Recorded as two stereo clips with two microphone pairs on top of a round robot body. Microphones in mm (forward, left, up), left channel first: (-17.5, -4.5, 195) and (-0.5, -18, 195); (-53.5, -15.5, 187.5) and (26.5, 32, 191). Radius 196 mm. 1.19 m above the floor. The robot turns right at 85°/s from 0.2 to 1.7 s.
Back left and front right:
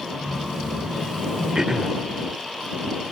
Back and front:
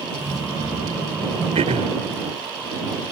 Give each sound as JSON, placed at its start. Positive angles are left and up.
{"t": 1.6, "sound": "throat clearing", "azimuth_deg": 20}